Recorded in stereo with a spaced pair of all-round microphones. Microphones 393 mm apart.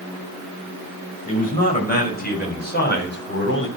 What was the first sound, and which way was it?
A man speaking, 20° left (ahead or behind).